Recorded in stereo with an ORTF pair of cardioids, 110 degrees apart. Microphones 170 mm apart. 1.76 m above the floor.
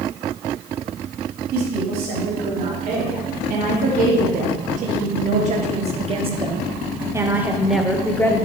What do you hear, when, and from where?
1.5 s a woman speaking: 65° right, 4 m; by 8.5 s 15° left, 1.2 m